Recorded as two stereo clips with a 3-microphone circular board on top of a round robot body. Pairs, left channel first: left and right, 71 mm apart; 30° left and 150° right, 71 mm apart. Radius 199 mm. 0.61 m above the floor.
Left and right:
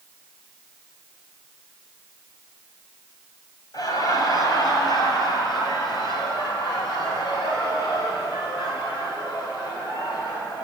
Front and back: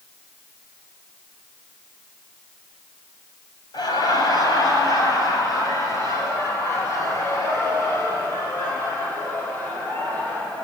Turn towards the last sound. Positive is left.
turn(degrees=95)